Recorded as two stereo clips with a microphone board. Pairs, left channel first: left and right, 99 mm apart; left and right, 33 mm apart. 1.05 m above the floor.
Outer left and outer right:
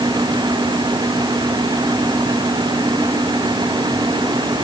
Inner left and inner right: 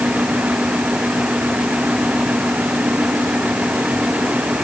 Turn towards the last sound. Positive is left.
No sound to turn to.